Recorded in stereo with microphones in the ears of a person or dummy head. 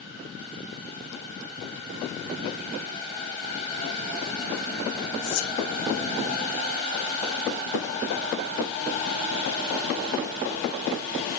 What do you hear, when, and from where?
5.2 s whispering: 85° left, 2.5 m